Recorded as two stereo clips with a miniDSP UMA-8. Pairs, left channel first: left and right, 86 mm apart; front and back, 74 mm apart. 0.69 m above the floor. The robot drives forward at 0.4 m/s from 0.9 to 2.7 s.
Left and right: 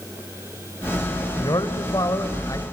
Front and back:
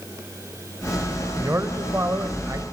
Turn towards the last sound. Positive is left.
turn(degrees=135)